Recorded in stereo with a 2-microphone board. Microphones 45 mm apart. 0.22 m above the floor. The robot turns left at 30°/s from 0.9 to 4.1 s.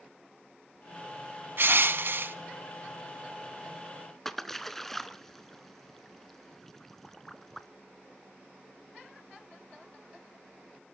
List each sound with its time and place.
1.6 s crushing: 55° right (ahead or behind), 0.9 m; by 2.4 s 50° right (ahead or behind), 0.9 m
4.2 s a splash: 10° left (ahead or behind), 0.8 m